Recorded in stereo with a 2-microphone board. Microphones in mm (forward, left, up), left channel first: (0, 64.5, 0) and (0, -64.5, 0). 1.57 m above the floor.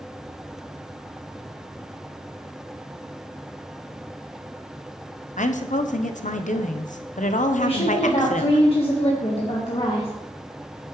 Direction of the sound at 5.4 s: 75° left (ahead or behind).